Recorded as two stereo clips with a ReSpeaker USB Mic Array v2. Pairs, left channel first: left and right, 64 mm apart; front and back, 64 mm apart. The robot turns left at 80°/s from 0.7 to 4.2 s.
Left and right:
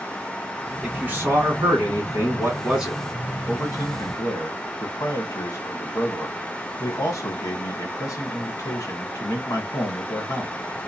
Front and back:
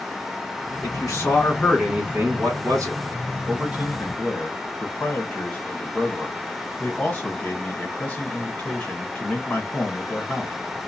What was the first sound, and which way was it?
A man speaking, 5° right.